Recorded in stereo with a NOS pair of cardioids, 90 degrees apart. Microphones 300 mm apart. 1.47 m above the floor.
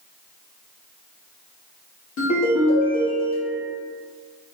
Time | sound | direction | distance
2.2 | a ringtone | 65° left | 1.5 m